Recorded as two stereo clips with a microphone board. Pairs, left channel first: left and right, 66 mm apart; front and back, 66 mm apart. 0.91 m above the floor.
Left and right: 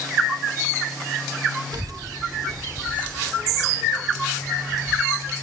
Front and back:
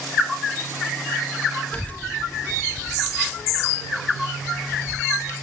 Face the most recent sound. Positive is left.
turn(degrees=-40)